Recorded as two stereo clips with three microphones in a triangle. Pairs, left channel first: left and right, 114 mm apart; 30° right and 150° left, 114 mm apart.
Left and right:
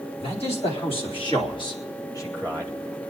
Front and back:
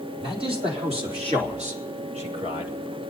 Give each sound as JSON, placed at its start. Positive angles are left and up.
{"t": 0.2, "sound": "a man speaking", "azimuth_deg": 115, "distance_m": 4.0}